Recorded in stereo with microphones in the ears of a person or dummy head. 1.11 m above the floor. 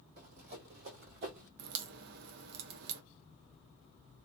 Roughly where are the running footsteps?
Right.